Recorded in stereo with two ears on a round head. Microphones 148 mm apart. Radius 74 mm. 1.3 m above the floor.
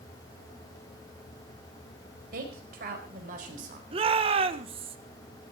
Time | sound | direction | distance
2.3 | a woman speaking | 65° right (ahead or behind) | 5 m
3.9 | a shout | 35° right (ahead or behind) | 1.3 m